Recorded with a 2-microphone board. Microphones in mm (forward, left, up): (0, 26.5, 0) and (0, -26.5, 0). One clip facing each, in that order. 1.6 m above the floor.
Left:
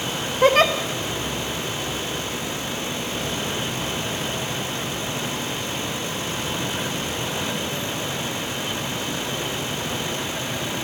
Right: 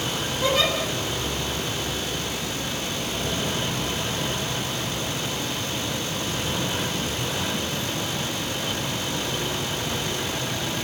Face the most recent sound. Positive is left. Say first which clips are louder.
# left 7 dB
turn(degrees=45)  # may be behind; listen again after turning